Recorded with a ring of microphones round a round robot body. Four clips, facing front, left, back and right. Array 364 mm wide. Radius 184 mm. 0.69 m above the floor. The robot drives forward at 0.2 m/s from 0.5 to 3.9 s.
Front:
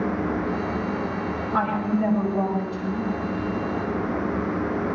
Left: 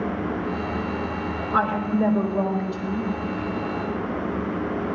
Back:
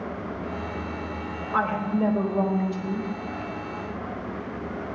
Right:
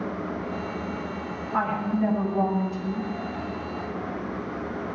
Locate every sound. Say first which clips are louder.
1.5 s a woman speaking: left 3 dB, front 1 dB; 130° left, 4 m